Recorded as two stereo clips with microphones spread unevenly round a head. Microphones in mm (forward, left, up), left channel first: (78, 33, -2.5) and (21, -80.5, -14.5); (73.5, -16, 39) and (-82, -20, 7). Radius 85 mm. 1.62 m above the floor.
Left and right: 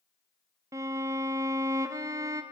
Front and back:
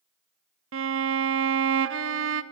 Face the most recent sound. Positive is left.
turn(degrees=170)